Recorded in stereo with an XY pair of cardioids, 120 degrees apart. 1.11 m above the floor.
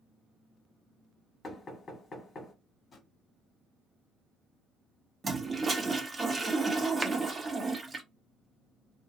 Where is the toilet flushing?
25° right, 0.9 m.